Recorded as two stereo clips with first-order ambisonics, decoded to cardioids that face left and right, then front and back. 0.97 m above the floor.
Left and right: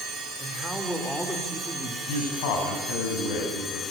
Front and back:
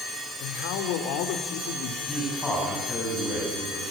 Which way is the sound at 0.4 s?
Straight ahead.